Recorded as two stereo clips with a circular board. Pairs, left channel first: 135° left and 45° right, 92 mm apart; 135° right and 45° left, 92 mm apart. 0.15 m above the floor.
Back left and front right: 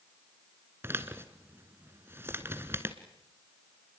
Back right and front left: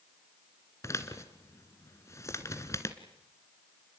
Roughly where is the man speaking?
Right.